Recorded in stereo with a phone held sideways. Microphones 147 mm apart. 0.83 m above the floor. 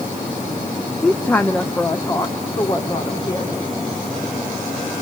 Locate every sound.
1.0 s a woman speaking: 5° left (ahead or behind), 0.7 m; by 3.5 s 25° left (ahead or behind), 2.5 m